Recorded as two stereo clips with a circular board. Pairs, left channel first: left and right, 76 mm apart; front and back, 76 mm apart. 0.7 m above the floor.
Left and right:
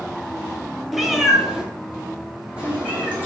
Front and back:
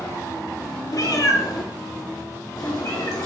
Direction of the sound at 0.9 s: Straight ahead.